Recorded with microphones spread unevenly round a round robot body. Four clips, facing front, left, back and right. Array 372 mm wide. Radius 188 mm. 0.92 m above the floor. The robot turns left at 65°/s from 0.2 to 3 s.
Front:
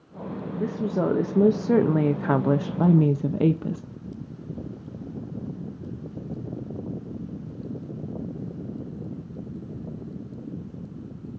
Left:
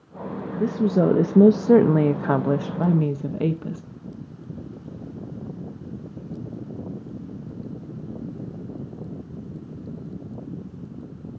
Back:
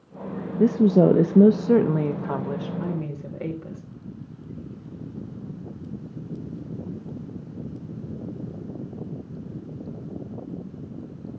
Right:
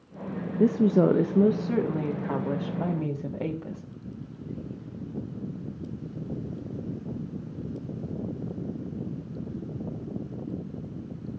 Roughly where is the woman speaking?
Behind.